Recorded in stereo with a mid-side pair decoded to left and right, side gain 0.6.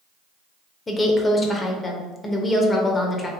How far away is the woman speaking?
About 0.6 m.